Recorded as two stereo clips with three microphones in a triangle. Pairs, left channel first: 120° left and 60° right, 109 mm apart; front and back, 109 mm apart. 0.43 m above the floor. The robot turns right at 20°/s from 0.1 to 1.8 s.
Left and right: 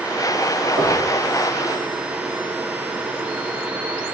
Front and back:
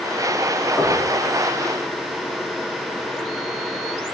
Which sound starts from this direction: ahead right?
Knocking, at 0.8 s.